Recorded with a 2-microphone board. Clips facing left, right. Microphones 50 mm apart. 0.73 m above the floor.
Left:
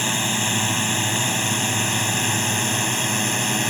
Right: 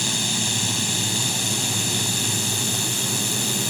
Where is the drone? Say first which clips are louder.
Left 3 dB; 30° left (ahead or behind); by 3.7 s 40° left (ahead or behind).